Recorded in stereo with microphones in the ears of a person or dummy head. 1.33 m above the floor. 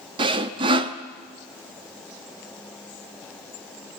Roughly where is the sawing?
Right.